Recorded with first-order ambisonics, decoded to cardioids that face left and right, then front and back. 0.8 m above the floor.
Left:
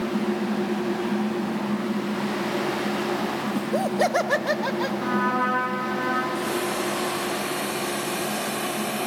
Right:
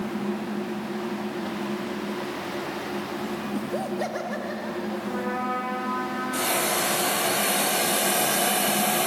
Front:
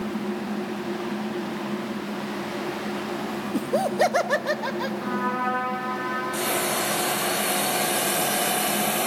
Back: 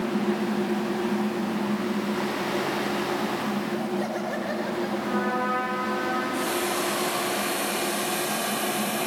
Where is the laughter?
10° left, 0.9 m; by 4.9 s 60° left, 1.5 m.